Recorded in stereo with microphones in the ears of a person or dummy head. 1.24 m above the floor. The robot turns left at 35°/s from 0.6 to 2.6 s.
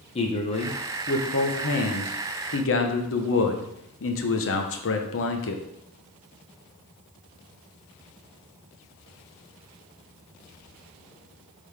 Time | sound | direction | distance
0.1 | a man speaking | 150° left | 1.0 m